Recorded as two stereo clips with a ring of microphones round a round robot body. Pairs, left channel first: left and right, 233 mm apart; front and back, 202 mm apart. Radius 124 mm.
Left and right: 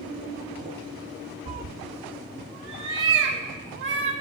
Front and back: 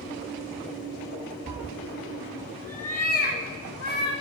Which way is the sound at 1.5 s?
135° right.